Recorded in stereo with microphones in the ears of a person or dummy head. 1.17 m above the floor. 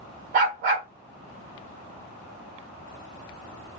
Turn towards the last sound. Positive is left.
turn(degrees=-50)  # may be behind; listen again after turning